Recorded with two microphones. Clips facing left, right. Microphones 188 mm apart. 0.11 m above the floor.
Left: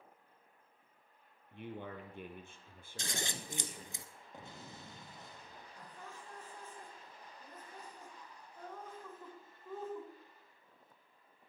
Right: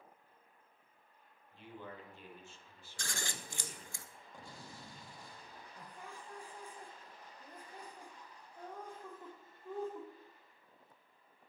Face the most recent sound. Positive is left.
turn(degrees=-15)  # may be behind; listen again after turning